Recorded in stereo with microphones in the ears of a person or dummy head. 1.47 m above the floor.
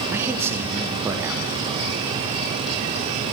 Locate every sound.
0.1 s a man speaking: 15° right (ahead or behind), 1.4 m